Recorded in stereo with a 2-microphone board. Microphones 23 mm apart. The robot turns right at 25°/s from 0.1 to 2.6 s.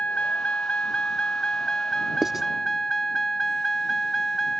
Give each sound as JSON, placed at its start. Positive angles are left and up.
{"t": 0.0, "sound": "a vehicle", "azimuth_deg": 100}
{"t": 2.2, "sound": "writing", "side_deg": -20}